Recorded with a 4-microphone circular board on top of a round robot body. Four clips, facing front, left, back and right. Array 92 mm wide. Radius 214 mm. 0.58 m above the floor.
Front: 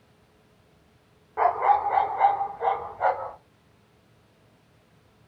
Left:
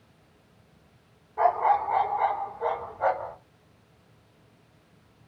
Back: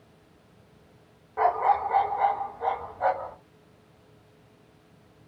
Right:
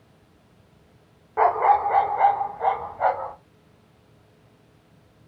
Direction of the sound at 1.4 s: 85° right.